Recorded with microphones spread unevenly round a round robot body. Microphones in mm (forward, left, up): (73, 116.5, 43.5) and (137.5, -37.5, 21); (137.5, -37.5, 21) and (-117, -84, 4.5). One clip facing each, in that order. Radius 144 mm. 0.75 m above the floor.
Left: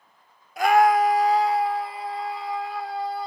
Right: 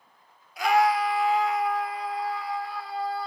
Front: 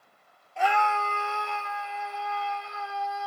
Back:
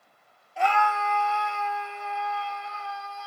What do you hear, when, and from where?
0.6 s a scream: 110° left, 0.5 m; by 3.3 s 40° left, 2.5 m